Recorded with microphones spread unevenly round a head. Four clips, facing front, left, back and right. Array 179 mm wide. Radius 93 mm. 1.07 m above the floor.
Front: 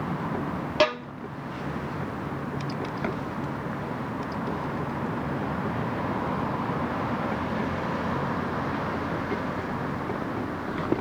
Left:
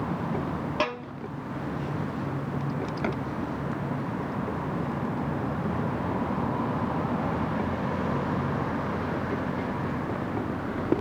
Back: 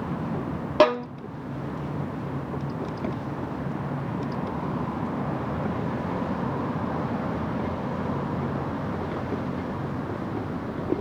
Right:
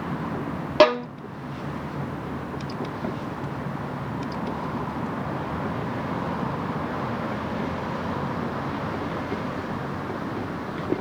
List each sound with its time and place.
0.8 s a violin: 110° right